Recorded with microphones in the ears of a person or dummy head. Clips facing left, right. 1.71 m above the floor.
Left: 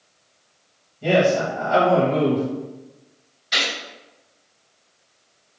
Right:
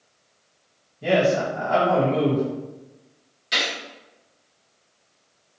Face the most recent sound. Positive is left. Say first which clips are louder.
# left 1 dB
turn(degrees=-40)  # may be behind; listen again after turning